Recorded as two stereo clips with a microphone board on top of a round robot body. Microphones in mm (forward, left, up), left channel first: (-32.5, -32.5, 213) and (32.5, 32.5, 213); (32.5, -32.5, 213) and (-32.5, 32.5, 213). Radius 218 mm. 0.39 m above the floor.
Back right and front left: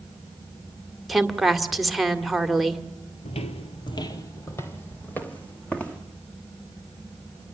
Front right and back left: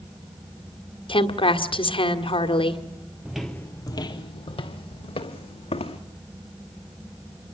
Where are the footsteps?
145° right, 0.7 m; by 6.0 s 55° right, 2.5 m.